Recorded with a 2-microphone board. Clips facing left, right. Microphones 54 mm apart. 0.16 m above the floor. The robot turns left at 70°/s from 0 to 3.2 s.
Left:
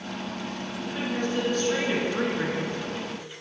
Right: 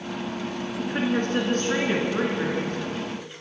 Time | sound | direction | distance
0.8 | a woman speaking | 65° right | 2 m